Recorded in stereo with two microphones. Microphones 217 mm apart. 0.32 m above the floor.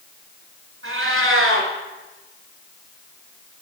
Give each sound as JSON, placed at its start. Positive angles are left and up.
{"t": 0.8, "sound": "a cat meowing", "side_deg": -70, "distance_m": 1.7}